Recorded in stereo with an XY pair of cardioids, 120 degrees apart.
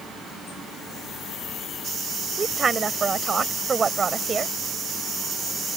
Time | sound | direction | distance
2.4 | a woman speaking | 30° right | ?